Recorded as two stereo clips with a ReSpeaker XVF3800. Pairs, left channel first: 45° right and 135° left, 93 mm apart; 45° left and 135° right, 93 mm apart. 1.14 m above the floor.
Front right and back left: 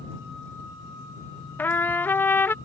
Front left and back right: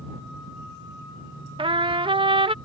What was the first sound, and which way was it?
A trumpet, 115° right.